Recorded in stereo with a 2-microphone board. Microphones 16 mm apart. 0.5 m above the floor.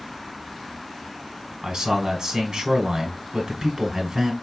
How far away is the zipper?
I don't hear a zipper.